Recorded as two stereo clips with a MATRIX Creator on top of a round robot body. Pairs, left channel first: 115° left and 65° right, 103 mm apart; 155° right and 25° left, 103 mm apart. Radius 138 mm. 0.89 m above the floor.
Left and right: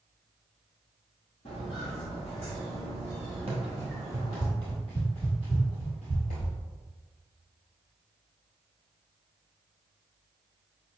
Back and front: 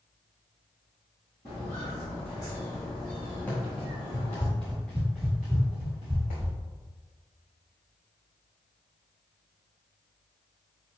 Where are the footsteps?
140° left, 1.4 m; by 4.5 s 130° left, 3 m.